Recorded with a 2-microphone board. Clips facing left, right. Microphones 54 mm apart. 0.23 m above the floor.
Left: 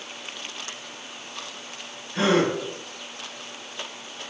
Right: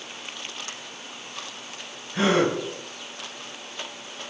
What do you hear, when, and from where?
2.1 s a gasp: centre (ahead or behind), 1.5 m